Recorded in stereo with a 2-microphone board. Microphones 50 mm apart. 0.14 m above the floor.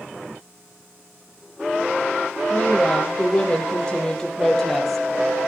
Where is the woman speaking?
30° left (ahead or behind), 5.5 m; by 5.0 s centre (ahead or behind), 4 m.